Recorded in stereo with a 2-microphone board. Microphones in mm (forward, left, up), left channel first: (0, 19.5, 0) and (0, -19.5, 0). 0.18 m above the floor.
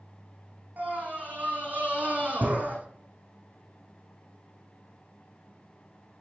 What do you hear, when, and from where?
0.8 s a scream: 40° right (ahead or behind), 8.5 m